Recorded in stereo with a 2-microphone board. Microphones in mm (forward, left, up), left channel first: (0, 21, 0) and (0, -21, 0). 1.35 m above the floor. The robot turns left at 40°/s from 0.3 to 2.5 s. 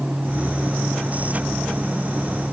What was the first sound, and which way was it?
Only background noise.